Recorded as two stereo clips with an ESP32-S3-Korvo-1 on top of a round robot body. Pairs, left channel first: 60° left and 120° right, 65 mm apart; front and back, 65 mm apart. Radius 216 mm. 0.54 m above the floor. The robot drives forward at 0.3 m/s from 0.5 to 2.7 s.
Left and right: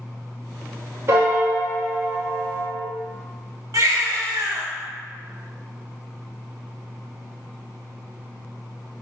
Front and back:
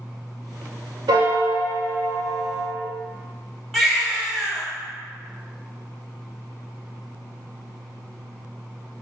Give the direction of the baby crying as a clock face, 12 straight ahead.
3 o'clock.